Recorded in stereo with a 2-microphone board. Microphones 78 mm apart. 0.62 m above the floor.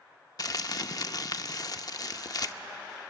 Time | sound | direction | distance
0.4 | crumpling | 50° left (ahead or behind) | 0.7 m